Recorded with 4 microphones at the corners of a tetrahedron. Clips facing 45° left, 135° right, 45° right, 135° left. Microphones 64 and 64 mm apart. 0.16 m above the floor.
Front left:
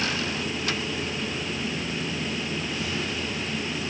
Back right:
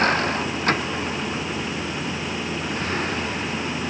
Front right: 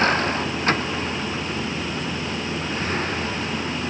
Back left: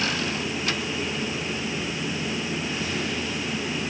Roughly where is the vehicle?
Right.